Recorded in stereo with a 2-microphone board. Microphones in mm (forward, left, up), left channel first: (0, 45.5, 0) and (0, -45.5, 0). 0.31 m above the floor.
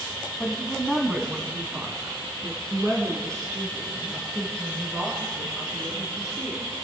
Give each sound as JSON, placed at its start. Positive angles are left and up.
{"t": 0.4, "sound": "a woman speaking", "side_deg": 10, "distance_m": 2.5}